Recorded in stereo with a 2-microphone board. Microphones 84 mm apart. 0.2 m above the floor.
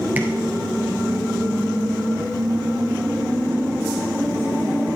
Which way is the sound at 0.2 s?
20° right (ahead or behind).